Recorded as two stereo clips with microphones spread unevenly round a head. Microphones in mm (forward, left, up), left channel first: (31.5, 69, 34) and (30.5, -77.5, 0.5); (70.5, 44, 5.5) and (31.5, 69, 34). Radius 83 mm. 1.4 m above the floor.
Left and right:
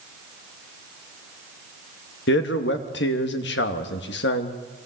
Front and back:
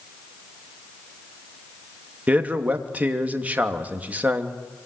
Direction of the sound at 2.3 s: 90° left.